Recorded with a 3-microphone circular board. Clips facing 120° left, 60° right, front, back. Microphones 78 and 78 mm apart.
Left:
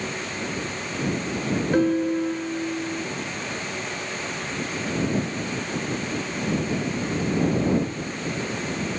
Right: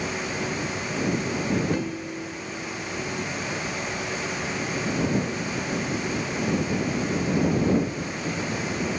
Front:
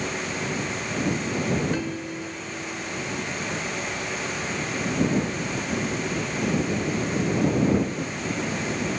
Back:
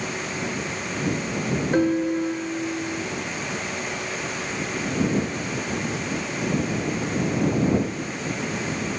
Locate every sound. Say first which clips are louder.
1.7 s a piano: left 9 dB, back 9 dB; 140° left